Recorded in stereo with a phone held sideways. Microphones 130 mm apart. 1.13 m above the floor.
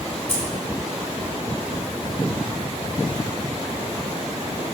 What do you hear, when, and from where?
0.3 s keys jangling: 50° left (ahead or behind), 2.5 m